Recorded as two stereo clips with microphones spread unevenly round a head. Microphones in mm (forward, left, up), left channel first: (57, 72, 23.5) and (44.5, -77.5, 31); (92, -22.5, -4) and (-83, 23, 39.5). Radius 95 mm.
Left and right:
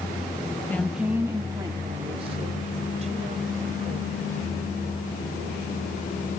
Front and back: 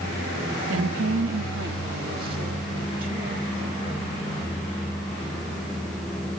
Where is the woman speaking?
160° left; by 4.2 s 145° right.